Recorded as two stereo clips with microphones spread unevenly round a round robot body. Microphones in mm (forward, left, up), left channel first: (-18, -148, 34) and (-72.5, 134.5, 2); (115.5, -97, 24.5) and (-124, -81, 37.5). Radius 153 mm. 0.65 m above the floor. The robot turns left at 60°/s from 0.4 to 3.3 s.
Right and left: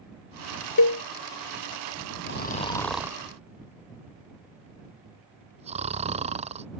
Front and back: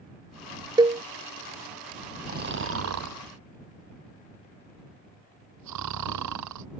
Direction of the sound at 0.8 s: 110° right.